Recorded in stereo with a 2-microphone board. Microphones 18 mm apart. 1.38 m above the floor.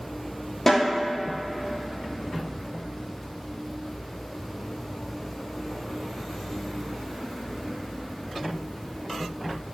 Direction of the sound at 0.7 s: 20° left (ahead or behind).